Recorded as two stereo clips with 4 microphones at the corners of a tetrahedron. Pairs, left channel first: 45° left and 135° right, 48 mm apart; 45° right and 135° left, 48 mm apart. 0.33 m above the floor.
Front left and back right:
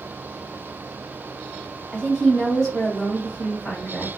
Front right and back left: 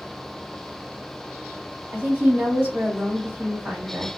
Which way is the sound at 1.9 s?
130° left.